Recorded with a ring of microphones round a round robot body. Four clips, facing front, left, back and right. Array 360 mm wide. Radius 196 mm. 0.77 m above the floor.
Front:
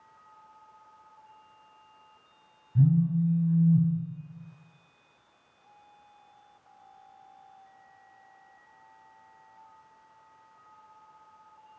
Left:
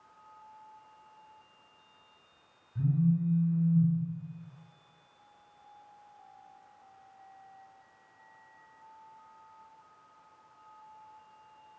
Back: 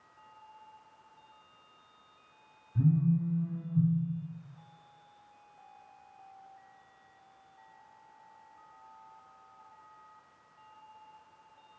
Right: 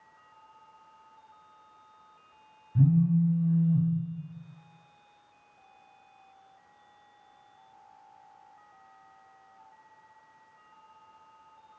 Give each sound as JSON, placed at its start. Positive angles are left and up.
{"t": 2.8, "sound": "a phone buzzing", "azimuth_deg": -65, "distance_m": 3.0}